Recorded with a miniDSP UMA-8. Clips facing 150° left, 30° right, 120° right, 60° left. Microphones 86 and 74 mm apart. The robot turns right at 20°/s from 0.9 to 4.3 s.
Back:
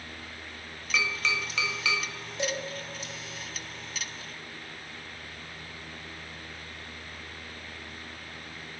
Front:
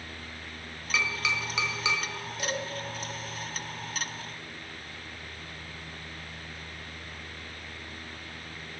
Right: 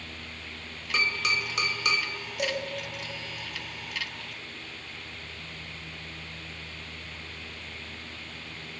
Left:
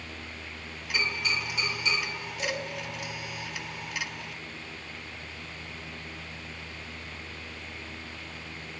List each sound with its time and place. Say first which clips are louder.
0.9 s tapping: even, right 2 dB; 115° right, 1.1 m; by 2.0 s 95° right, 1.1 m
2.4 s dishes clattering: back 2 dB, right 3 dB; 145° right, 1.4 m; by 2.6 s 140° right, 1.4 m